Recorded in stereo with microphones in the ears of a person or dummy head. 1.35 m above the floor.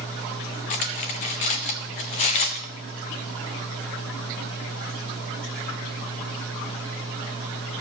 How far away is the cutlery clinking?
About 0.6 m.